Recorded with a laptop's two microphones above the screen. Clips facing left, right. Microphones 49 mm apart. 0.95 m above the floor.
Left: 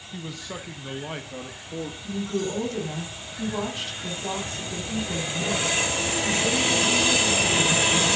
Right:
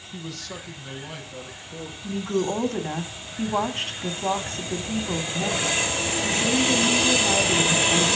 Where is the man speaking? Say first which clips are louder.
Left 1 dB; 10° left (ahead or behind), 1.0 m; by 1.9 s 45° left (ahead or behind), 1.6 m.